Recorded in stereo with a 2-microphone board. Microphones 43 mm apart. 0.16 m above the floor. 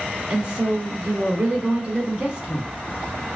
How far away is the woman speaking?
About 1.1 m.